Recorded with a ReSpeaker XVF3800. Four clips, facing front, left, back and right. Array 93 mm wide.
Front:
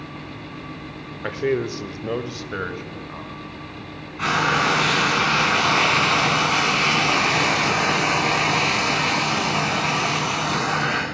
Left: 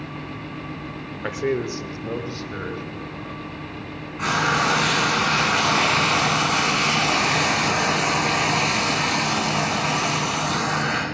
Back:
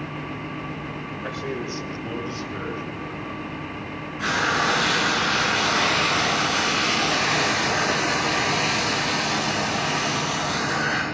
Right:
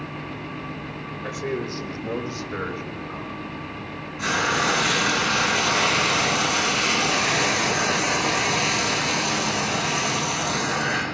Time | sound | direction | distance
1.2 | a man speaking | 45° left | 1.0 m
4.2 | frying | 35° left | 4.5 m